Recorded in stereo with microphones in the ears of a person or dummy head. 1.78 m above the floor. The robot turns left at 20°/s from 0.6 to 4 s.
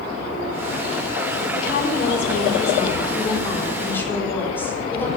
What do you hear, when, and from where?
1.6 s a woman speaking: 60° left, 4.5 m; by 5.1 s 10° left, 4.5 m